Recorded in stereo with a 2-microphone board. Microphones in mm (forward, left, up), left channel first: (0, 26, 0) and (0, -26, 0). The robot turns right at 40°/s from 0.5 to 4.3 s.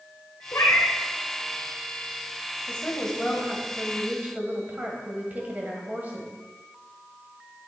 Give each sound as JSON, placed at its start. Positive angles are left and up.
{"t": 0.5, "sound": "a cat meowing", "side_deg": 60, "distance_m": 1.3}
{"t": 2.7, "sound": "a woman speaking", "azimuth_deg": 150, "distance_m": 2.0}